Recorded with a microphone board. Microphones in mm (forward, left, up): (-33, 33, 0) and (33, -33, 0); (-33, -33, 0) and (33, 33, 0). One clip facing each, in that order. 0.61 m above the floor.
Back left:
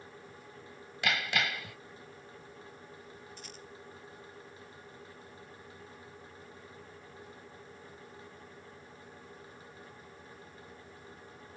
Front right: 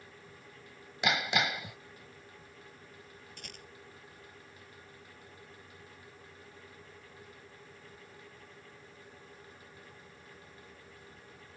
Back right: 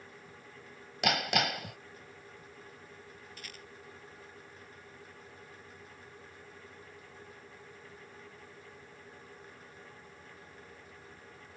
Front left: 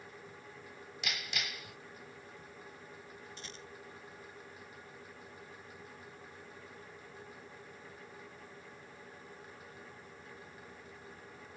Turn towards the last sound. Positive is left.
turn(degrees=-20)